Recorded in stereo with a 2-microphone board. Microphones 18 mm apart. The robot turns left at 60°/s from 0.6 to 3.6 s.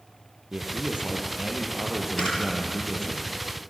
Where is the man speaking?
75° right, 6.5 m; by 3.2 s 130° left, 6.5 m.